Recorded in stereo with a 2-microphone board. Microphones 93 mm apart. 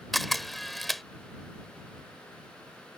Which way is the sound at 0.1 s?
Centre (ahead or behind).